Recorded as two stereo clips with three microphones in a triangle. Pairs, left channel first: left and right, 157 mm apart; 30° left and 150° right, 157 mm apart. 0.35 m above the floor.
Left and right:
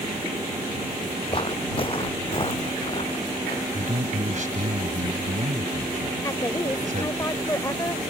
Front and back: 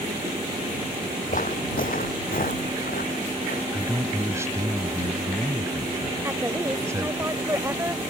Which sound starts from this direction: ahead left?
Footsteps, at 1.3 s.